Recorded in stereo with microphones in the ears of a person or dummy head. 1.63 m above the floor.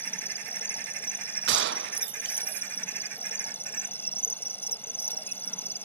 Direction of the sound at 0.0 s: 10° left (ahead or behind).